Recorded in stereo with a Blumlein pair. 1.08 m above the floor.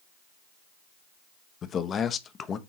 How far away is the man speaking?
About 0.8 m.